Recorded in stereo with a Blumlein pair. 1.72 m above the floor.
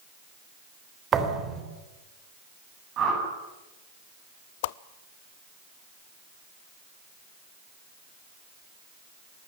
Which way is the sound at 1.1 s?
25° right.